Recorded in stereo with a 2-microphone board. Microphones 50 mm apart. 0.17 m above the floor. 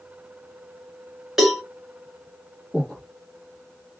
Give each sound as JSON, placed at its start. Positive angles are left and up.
{"t": 1.4, "sound": "a cowbell", "side_deg": -10, "distance_m": 1.5}
{"t": 2.7, "sound": "breathing", "side_deg": 0, "distance_m": 2.0}